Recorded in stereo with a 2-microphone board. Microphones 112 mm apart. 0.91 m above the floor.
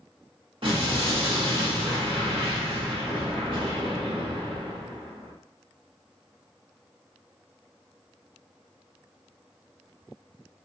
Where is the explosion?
55° right (ahead or behind), 1.4 m.